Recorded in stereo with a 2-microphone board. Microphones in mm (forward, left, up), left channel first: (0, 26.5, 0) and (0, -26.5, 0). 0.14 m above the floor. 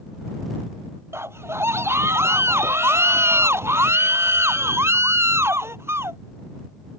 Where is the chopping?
I don't hear chopping.